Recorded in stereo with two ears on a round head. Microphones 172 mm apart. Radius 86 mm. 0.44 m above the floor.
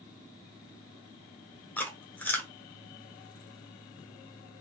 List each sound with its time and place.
1.8 s chewing: 10° left (ahead or behind), 0.9 m